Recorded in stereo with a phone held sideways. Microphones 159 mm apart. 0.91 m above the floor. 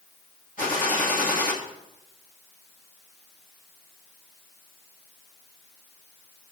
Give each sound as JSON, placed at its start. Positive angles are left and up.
{"t": 0.6, "sound": "a gunshot", "side_deg": 65, "distance_m": 2.0}